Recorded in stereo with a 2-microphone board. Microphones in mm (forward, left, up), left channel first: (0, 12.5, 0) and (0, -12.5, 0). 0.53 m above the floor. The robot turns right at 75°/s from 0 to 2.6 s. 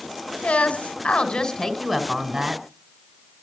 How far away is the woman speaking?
About 2.5 m.